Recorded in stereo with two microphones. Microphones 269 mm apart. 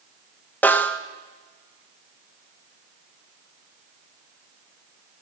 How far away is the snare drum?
About 0.8 m.